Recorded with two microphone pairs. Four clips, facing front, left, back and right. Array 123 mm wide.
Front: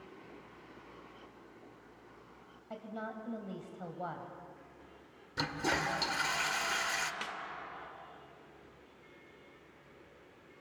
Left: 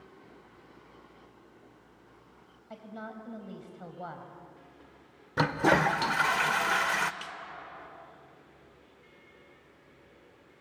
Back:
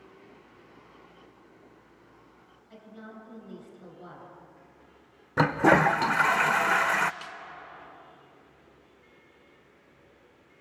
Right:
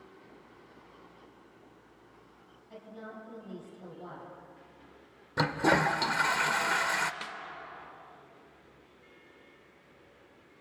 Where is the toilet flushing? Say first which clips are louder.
Left 2 dB, back 14 dB; 175° left, 0.6 m.